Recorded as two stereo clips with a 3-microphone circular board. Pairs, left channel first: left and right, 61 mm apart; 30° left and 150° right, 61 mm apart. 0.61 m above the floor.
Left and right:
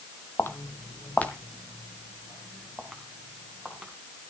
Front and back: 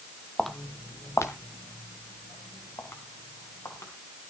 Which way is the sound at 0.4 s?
120° left.